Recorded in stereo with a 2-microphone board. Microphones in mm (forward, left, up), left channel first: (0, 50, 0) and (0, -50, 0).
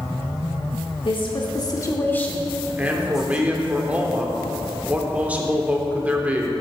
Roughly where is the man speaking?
Centre.